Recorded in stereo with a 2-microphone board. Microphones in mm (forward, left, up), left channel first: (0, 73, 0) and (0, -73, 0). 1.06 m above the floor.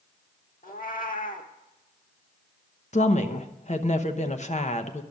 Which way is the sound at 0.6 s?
70° left (ahead or behind).